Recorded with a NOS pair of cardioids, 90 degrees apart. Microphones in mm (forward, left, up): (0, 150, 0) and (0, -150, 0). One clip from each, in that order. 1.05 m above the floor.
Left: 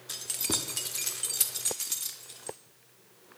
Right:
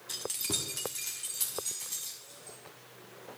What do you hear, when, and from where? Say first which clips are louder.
0.1 s keys jangling: left 2 dB; 15° left, 1.2 m; by 2.6 s 70° left, 1.7 m